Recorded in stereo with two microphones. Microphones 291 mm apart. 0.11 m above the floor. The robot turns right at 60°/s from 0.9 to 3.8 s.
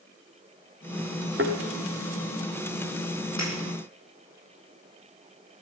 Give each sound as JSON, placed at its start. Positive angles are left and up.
{"t": 1.4, "sound": "a thud", "side_deg": -40, "distance_m": 3.5}
{"t": 3.4, "sound": "breaking glass", "side_deg": 65, "distance_m": 9.0}